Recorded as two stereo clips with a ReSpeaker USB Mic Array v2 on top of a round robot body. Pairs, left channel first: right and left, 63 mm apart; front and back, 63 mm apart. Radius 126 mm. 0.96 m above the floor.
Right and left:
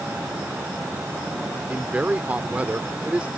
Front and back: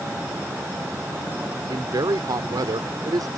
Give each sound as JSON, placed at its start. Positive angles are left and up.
{"t": 1.7, "sound": "a man speaking", "azimuth_deg": 160}